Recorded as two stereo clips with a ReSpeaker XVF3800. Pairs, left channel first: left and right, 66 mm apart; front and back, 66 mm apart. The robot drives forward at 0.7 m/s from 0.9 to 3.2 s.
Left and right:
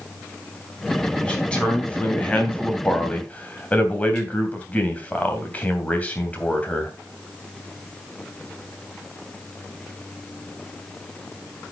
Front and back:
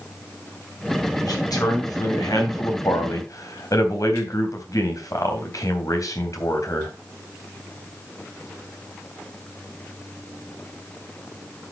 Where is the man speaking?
15° left, 4.5 m; by 6.9 s 25° left, 3 m.